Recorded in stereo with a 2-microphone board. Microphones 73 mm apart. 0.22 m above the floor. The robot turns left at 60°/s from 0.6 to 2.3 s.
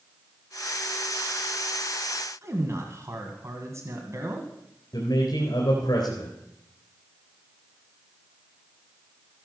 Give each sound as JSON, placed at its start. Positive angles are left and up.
{"t": 2.4, "sound": "a man speaking", "side_deg": -40, "distance_m": 2.0}
{"t": 4.9, "sound": "a man speaking", "side_deg": 60, "distance_m": 3.0}